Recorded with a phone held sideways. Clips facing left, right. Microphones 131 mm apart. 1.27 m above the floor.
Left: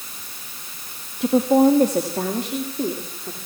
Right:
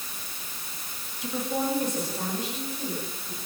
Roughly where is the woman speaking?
Left.